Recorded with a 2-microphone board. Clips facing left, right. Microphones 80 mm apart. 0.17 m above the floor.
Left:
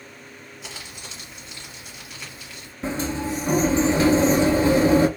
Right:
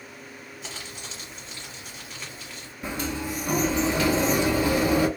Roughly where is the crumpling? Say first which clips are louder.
Even; centre.